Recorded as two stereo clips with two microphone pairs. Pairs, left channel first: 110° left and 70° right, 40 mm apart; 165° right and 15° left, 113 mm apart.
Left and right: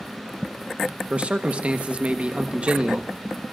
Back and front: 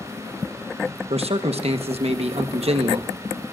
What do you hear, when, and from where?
1.1 s a man speaking: 10° right, 1.2 m